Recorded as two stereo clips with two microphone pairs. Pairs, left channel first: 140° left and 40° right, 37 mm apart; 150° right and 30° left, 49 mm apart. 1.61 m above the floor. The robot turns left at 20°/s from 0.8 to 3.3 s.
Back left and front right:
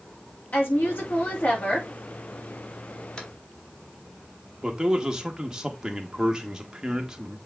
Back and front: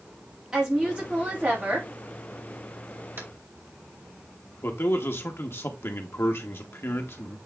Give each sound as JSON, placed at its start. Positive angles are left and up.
{"t": 0.5, "sound": "a woman speaking", "azimuth_deg": 105, "distance_m": 3.5}
{"t": 3.2, "sound": "tapping", "azimuth_deg": 70, "distance_m": 1.7}
{"t": 4.6, "sound": "a man speaking", "azimuth_deg": -115, "distance_m": 1.7}